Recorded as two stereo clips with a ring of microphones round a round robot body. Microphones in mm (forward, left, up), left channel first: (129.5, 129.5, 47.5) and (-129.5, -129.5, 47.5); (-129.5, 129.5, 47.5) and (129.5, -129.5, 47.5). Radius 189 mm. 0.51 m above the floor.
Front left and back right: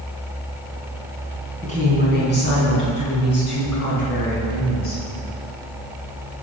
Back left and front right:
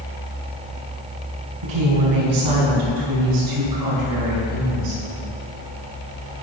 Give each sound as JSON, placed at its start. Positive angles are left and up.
{"t": 1.6, "sound": "a woman speaking", "azimuth_deg": -30, "distance_m": 5.0}